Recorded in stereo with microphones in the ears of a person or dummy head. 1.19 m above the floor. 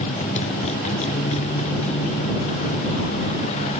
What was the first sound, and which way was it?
A motorcycle, 35° left (ahead or behind).